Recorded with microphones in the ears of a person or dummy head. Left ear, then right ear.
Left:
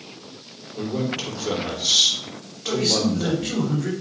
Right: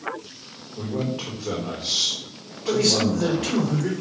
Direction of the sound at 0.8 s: 80° left.